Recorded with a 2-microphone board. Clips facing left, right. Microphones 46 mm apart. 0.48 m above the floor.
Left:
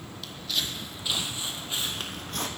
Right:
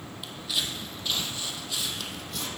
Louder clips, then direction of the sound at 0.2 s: Even; 15° right (ahead or behind).